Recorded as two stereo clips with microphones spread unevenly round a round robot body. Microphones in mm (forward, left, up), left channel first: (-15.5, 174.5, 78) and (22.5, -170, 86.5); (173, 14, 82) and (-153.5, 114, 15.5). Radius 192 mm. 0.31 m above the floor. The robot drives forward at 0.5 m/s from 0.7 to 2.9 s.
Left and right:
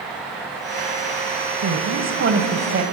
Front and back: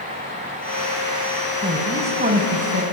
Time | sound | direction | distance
1.6 | a woman speaking | 130° right | 2.5 m